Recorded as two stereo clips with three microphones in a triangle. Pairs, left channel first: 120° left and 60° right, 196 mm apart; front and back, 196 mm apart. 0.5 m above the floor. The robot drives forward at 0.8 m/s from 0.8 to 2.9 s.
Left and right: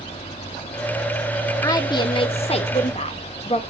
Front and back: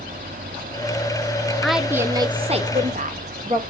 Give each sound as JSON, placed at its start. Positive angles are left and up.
{"t": 1.6, "sound": "a woman speaking", "azimuth_deg": 80, "distance_m": 1.1}